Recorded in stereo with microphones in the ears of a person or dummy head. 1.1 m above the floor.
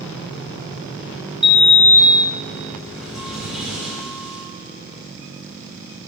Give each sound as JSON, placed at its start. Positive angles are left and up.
{"t": 1.4, "sound": "a sliding door", "side_deg": 0, "distance_m": 2.0}